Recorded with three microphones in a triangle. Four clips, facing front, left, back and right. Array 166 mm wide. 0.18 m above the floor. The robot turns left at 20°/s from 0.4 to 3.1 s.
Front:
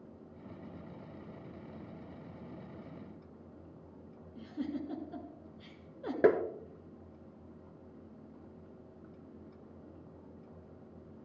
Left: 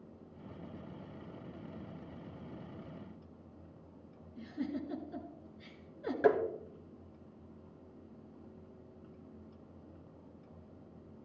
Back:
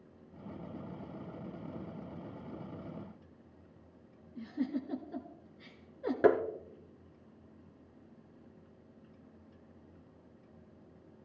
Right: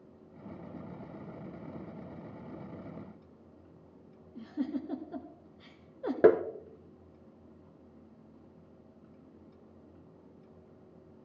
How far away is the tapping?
About 0.8 m.